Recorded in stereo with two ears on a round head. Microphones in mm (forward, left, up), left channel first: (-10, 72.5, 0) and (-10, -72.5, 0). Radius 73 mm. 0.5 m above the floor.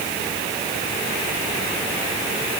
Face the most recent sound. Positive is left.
No sound to turn to.